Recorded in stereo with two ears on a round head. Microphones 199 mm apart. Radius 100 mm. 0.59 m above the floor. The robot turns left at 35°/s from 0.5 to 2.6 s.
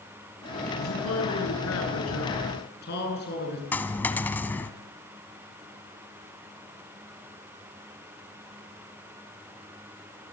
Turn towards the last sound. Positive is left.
turn(degrees=10)  # may be behind; listen again after turning